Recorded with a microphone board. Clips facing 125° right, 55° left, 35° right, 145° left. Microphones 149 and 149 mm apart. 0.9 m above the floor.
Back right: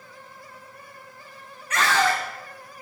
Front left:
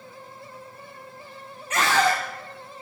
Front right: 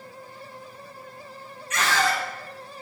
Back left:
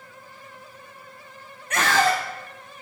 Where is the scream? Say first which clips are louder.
Front left 1 dB, back left 4 dB; 120° left, 1.1 m.